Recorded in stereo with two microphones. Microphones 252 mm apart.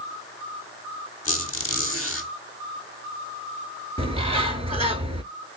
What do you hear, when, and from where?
1.2 s a squeak: 65° left (ahead or behind), 1.0 m
4.0 s a bird: 25° right (ahead or behind), 0.6 m